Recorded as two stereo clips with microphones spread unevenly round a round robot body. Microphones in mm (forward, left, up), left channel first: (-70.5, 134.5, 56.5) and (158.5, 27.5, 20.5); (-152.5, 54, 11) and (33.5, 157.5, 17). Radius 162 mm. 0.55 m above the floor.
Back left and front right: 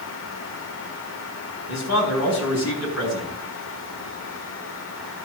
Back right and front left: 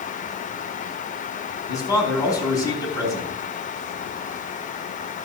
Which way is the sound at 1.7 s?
135° left.